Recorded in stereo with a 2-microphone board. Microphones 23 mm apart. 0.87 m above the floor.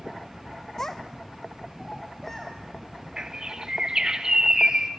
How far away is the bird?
About 1.6 m.